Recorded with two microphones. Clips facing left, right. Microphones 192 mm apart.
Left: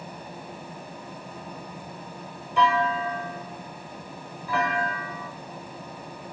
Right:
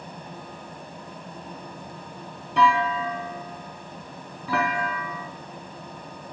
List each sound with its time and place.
2.6 s a clunk: 75° right (ahead or behind), 0.6 m